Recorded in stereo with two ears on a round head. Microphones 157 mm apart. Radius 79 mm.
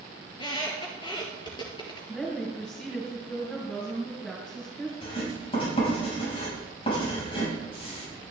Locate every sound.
0.3 s a squeak: 25° left (ahead or behind), 3.5 m
2.1 s a woman speaking: centre (ahead or behind), 5 m
5.0 s writing: 35° left (ahead or behind), 6.5 m